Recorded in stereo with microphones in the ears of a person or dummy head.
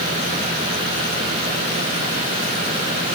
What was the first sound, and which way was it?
Only background noise.